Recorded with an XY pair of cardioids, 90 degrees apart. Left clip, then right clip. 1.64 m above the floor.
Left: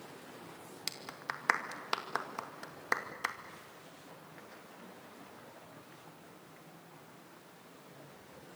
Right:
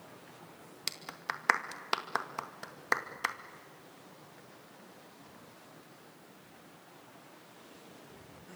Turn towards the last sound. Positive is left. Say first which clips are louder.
# right 3 dB
turn(degrees=-20)